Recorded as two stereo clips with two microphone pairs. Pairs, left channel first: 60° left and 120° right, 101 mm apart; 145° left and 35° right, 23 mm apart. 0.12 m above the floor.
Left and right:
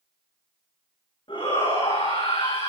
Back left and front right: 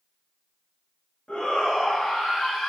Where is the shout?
100° left, 8.5 m.